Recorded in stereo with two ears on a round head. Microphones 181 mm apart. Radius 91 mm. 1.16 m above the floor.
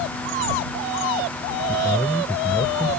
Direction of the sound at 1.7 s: 15° left (ahead or behind).